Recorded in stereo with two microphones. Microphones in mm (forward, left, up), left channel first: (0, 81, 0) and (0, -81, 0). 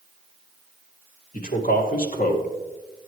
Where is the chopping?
I don't hear chopping.